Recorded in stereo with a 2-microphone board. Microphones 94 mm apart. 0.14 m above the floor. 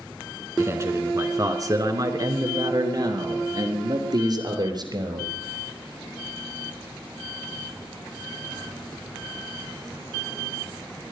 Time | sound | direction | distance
0.6 | a man speaking | 30° right (ahead or behind) | 1.6 m